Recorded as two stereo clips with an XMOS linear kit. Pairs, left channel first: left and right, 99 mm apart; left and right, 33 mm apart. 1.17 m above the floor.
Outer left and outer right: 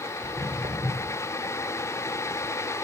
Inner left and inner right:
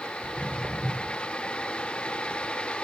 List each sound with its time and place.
0.2 s footsteps: 65° right (ahead or behind), 3 m